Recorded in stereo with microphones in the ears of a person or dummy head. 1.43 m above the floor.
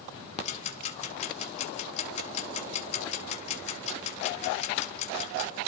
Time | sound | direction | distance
0.4 | ticking | 45° left (ahead or behind) | 1.5 m